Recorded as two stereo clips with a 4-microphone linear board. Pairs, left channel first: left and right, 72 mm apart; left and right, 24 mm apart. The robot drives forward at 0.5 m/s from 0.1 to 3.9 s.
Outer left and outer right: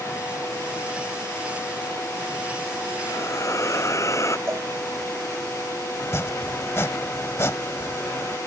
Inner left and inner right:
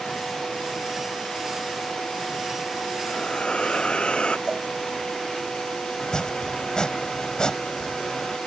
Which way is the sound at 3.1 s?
45° left (ahead or behind).